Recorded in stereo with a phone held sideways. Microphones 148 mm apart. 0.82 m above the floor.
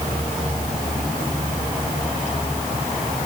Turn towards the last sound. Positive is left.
No sound to turn to.